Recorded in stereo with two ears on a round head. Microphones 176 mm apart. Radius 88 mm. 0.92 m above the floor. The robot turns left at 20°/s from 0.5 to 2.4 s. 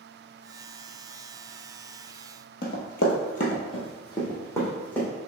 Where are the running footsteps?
55° left (ahead or behind), 1.5 m; by 5.1 s 5° left (ahead or behind), 2.5 m.